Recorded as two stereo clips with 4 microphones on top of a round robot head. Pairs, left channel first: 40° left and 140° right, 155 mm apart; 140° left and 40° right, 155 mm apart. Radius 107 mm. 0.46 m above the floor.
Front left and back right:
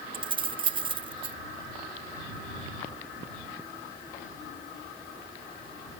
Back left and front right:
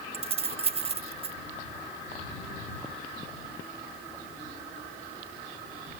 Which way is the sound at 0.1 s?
85° right.